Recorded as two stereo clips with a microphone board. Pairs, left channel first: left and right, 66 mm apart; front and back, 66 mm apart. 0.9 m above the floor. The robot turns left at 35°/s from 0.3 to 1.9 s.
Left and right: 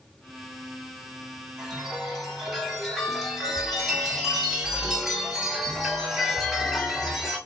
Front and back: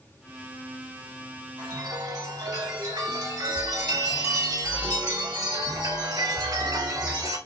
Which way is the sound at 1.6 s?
165° right.